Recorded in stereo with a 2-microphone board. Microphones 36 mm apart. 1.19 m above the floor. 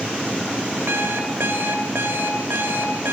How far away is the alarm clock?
About 2.5 m.